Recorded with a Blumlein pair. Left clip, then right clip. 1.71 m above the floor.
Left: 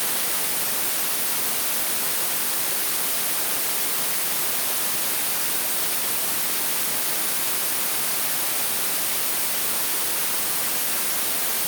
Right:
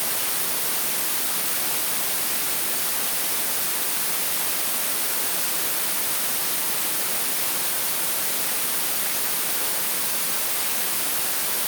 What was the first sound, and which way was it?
Only background noise.